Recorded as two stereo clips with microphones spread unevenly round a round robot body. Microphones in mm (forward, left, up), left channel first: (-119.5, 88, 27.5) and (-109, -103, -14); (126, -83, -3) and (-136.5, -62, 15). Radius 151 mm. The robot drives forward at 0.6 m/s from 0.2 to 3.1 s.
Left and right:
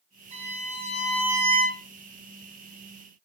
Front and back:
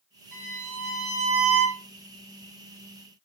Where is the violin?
140° right, 3.5 m; by 1.8 s 150° right, 4.5 m.